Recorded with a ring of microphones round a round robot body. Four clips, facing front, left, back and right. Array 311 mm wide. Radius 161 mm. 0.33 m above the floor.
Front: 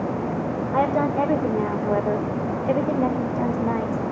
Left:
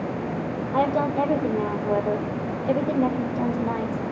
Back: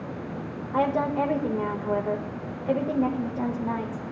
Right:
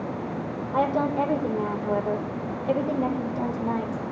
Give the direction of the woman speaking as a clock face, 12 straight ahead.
11 o'clock.